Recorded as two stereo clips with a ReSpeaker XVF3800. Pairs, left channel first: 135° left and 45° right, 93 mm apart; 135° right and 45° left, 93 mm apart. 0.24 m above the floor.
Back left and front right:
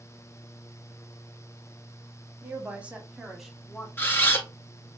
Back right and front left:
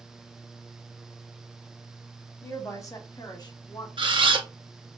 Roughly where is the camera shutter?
Left.